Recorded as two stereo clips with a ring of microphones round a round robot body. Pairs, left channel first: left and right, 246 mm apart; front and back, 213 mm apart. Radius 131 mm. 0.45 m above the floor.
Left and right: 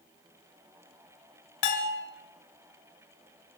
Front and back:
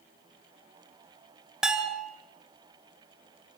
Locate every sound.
1.6 s a bell: 95° left, 3 m